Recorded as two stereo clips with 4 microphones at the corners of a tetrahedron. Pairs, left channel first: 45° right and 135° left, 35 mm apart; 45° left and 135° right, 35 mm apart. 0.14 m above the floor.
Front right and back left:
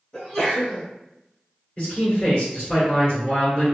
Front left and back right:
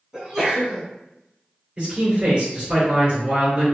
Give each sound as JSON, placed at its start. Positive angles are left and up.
{"t": 0.1, "sound": "a sneeze", "azimuth_deg": -85, "distance_m": 1.3}
{"t": 1.8, "sound": "a man speaking", "azimuth_deg": -105, "distance_m": 1.9}